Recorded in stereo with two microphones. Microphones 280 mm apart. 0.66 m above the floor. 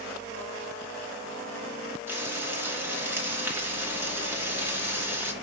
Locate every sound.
2.1 s frying: 10° right (ahead or behind), 3 m